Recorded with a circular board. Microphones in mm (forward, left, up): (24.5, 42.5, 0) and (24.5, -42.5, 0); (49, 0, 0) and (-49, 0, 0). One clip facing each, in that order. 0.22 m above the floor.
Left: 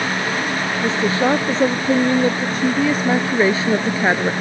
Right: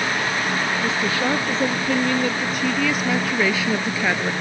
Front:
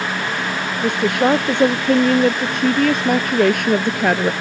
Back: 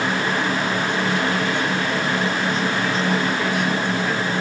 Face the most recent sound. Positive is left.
turn(degrees=30)